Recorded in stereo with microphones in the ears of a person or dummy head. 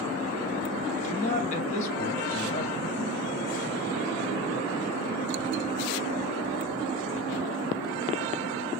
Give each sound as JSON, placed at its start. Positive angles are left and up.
{"t": 1.0, "sound": "a man speaking", "side_deg": 40, "distance_m": 1.9}